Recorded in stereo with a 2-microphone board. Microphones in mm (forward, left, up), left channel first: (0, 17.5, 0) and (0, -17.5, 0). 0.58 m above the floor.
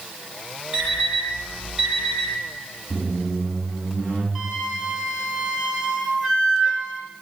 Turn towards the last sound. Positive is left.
turn(degrees=-10)  # may be behind; listen again after turning